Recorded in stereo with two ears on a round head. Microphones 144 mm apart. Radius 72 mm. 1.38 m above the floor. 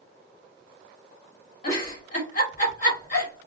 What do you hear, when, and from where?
1.6 s a giggle: 50° left (ahead or behind), 1.2 m